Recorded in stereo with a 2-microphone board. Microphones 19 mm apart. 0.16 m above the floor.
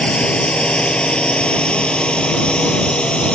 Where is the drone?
65° left (ahead or behind).